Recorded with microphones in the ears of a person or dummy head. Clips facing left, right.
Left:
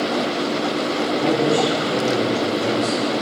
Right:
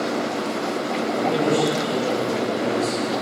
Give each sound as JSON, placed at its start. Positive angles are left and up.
{"t": 1.1, "sound": "a man speaking", "side_deg": 20, "distance_m": 4.0}